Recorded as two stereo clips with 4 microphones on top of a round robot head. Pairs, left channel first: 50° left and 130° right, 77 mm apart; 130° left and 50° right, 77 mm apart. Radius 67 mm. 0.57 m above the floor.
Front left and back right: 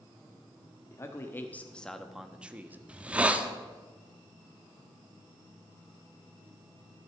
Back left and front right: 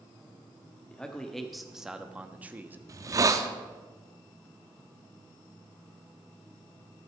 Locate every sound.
0.9 s a man speaking: 60° left, 1.2 m; by 2.8 s 90° right, 1.1 m
2.9 s a hiss: 65° right, 1.0 m